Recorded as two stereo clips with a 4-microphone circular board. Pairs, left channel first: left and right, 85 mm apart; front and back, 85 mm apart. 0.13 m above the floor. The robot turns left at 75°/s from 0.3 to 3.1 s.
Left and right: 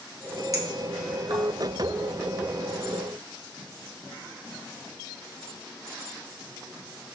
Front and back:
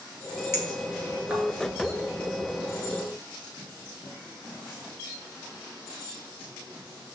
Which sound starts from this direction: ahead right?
A clink, at 0.5 s.